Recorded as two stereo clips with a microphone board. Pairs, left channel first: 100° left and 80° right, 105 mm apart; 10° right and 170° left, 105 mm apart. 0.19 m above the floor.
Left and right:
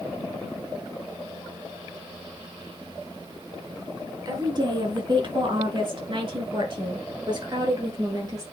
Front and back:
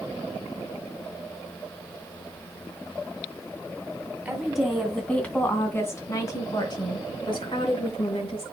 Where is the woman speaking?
110° right, 2.5 m; by 8.4 s 35° right, 4 m.